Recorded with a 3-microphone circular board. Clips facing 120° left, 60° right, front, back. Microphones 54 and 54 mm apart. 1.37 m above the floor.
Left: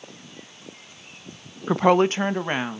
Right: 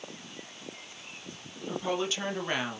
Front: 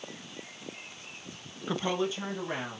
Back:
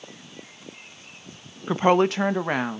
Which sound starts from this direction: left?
A woman speaking, at 1.7 s.